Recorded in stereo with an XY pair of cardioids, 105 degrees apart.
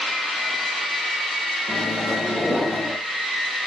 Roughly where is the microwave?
Ahead.